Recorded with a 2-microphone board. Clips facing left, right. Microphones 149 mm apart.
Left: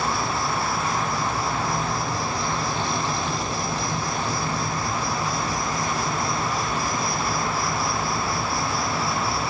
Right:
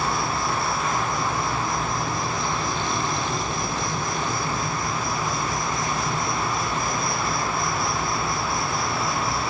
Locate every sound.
0.0 s an insect: 35° left (ahead or behind), 9 m